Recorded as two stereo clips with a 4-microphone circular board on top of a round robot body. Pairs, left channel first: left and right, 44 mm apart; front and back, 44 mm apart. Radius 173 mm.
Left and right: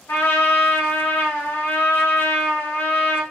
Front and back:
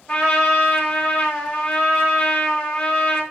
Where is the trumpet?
60° left, 4.5 m.